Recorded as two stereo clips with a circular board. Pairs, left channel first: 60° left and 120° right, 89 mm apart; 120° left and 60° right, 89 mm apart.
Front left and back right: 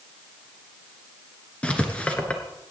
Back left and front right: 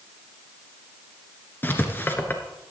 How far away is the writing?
About 1.3 m.